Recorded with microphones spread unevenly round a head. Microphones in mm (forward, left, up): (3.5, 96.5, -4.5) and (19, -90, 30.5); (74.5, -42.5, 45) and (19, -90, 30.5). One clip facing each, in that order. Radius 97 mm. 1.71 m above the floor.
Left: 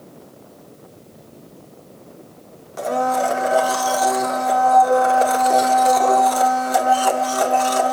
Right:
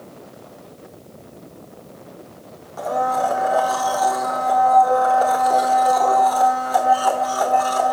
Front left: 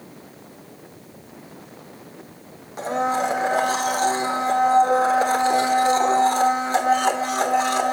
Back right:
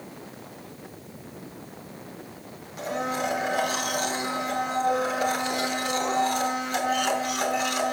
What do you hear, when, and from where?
2.8 s a blender: 40° left, 1.0 m